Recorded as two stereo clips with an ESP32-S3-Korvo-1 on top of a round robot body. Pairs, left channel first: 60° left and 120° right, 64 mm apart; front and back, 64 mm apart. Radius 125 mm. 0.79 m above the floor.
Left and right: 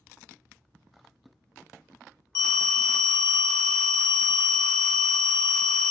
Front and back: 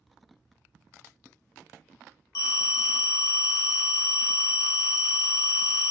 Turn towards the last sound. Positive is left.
turn(degrees=40)